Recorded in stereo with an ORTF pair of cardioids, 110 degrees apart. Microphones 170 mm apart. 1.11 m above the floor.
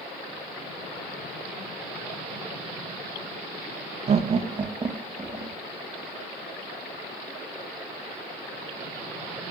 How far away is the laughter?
About 1.0 m.